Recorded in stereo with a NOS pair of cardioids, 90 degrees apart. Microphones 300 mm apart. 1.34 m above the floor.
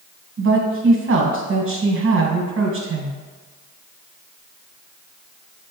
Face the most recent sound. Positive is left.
turn(degrees=-45)